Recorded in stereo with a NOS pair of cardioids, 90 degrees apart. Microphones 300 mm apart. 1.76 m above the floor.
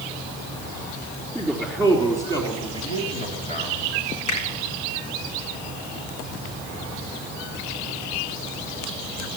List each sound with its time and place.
1.4 s a man speaking: 5° left, 3.5 m; by 3.8 s 30° left, 3.5 m
4.3 s a finger snap: 70° left, 7 m